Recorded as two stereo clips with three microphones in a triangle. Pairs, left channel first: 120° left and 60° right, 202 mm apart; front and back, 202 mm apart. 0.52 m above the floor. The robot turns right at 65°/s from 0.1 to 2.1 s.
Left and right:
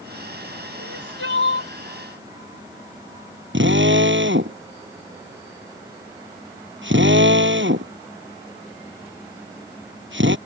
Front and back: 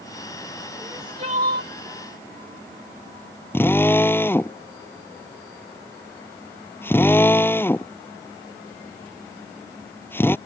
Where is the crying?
100° left; by 1.7 s 160° left.